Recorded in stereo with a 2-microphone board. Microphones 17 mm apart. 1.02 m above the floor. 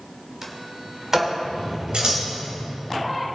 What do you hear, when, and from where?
0.4 s a sliding door: 20° right (ahead or behind), 1.8 m
1.9 s scissors: 55° right (ahead or behind), 2.5 m